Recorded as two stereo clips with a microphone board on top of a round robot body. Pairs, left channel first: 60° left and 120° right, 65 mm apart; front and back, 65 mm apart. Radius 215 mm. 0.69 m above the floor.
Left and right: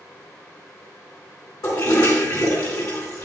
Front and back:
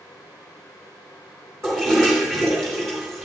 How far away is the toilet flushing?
About 3.5 m.